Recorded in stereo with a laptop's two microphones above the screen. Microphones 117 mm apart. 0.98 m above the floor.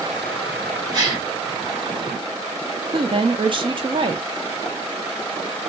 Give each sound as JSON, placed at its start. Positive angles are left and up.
{"t": 0.9, "sound": "a gasp", "side_deg": -35, "distance_m": 1.1}
{"t": 2.9, "sound": "a woman speaking", "side_deg": -45, "distance_m": 0.6}